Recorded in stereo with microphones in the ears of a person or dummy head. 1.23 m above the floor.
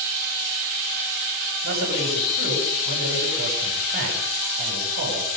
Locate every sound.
1.6 s a man speaking: 55° right (ahead or behind), 9 m